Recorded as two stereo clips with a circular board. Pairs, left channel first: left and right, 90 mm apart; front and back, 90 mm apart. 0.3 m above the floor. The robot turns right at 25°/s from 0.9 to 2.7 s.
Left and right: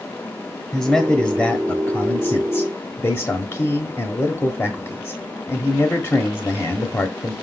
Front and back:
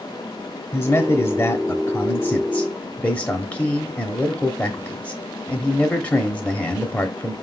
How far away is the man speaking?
About 1.0 m.